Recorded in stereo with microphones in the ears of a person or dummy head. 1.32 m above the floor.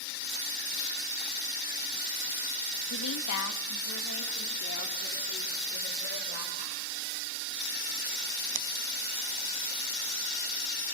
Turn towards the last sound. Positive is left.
turn(degrees=50)  # may be behind; listen again after turning